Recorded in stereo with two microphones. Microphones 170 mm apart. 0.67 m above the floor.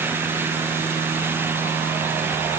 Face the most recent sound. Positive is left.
No sound to turn to.